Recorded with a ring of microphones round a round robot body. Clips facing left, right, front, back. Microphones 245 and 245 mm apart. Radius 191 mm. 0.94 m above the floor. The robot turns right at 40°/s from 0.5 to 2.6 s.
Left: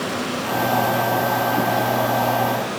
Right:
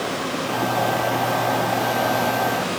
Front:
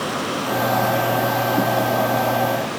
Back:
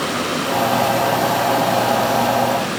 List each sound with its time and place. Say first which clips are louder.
0.0 s running water: left 1 dB, back 3 dB; 120° left, 7 m; by 2.8 s 155° right, 7 m